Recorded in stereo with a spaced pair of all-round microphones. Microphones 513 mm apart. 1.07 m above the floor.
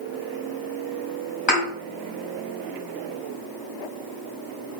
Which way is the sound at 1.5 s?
55° left (ahead or behind).